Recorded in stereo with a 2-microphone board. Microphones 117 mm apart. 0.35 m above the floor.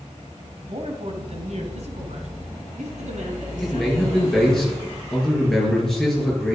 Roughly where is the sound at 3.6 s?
Centre.